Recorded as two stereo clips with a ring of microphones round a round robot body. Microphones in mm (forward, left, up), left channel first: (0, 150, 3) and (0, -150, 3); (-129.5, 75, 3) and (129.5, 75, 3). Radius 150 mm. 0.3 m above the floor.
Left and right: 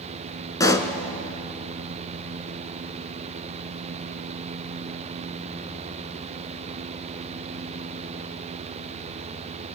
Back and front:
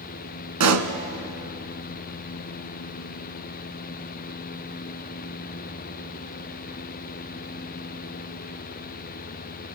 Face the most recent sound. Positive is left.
turn(degrees=10)